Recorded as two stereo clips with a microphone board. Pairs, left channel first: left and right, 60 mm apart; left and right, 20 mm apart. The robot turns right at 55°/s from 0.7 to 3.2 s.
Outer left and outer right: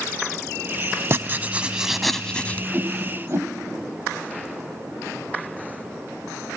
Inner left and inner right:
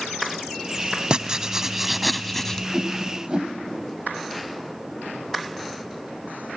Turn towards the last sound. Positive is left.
turn(degrees=-45)  # may be behind; listen again after turning